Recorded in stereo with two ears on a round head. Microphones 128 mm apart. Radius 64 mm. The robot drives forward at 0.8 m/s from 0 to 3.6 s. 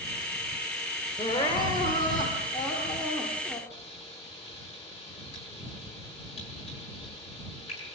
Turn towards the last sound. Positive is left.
turn(degrees=45)  # may be behind; listen again after turning